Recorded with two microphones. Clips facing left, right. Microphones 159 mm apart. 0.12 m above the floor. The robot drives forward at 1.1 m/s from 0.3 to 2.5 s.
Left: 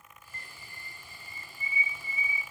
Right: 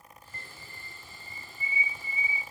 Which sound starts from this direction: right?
A bird, at 0.3 s.